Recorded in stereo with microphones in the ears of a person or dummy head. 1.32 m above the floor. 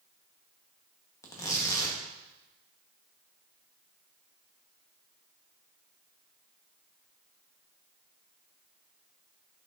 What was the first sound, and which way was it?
Tearing paper, 15° left (ahead or behind).